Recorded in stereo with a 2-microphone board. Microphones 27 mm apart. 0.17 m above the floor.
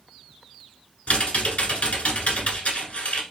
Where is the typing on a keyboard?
60° left (ahead or behind), 1.2 m.